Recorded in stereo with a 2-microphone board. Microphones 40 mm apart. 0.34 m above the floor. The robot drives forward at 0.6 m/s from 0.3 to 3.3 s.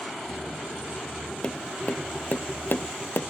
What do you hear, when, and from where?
1.4 s tapping: 25° left (ahead or behind), 1.2 m; by 3.2 s 75° left (ahead or behind), 0.6 m